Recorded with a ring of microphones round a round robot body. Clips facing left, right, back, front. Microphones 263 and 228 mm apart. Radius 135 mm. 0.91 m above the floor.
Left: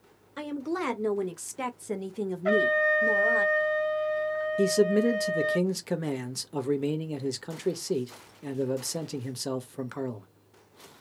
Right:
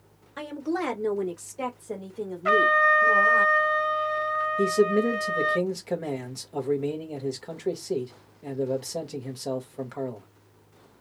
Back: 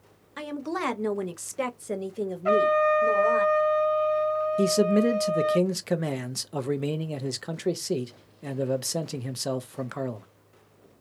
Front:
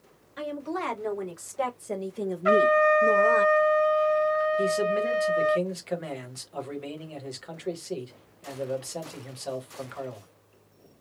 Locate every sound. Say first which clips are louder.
0.4 s a woman speaking: right 2 dB, back 1 dB; 175° left, 1.4 m; by 3.5 s 50° left, 1.3 m
2.5 s a trumpet: even, front 1 dB; 45° right, 0.5 m
4.6 s a man speaking: right 1 dB, back 5 dB; 150° left, 0.8 m